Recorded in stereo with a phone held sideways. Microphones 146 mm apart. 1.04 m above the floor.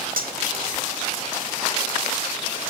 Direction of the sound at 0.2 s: 85° right.